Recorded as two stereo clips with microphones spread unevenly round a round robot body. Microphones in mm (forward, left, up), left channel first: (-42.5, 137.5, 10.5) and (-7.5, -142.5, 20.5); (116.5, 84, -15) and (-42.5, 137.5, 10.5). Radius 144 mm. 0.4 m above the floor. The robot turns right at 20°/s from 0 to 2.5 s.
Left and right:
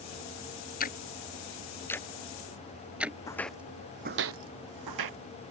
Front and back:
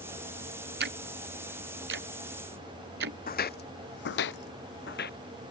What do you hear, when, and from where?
0.8 s ticking: 155° left; by 3.2 s 170° right
3.3 s footsteps: 15° left; by 5.2 s 75° right